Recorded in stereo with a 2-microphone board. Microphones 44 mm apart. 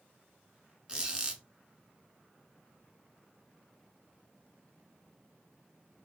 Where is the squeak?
20° right (ahead or behind), 0.8 m.